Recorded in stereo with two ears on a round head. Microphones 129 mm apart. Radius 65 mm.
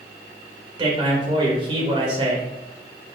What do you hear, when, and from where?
0.8 s a man speaking: 35° right (ahead or behind), 2 m